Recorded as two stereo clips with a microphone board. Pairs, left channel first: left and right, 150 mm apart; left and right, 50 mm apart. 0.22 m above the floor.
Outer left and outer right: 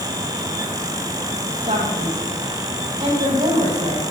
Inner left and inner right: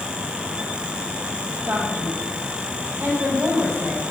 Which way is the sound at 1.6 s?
50° right (ahead or behind).